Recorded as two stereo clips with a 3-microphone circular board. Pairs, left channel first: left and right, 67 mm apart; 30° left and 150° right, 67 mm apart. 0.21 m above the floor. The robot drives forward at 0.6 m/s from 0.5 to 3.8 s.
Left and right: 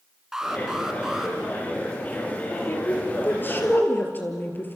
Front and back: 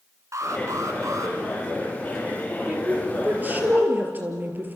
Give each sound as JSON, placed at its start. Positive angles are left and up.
{"t": 0.3, "sound": "an alarm", "azimuth_deg": -170, "distance_m": 2.5}
{"t": 2.7, "sound": "a woman speaking", "azimuth_deg": 145, "distance_m": 4.0}